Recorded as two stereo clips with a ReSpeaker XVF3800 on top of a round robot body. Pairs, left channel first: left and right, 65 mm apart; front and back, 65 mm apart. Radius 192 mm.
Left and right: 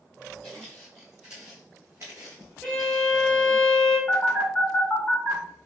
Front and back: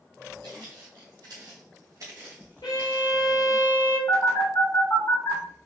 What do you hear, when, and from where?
0.4 s footsteps: 170° left, 1.3 m; by 3.3 s 80° right, 0.9 m
2.6 s a violin: 10° left, 1.0 m
4.1 s a phone buzzing: 20° left, 2.5 m